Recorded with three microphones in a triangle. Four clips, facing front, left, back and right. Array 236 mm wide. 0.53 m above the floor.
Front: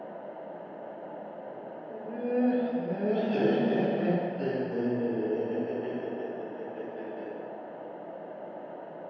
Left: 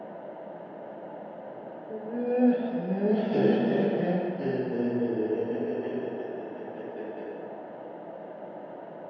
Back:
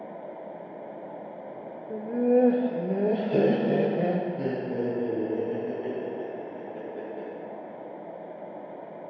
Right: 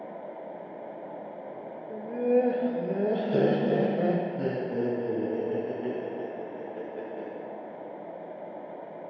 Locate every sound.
1.9 s laughter: 175° left, 1.0 m; by 7.3 s 125° right, 5 m